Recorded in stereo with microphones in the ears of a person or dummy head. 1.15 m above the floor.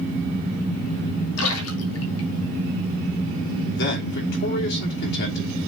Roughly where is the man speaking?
Left.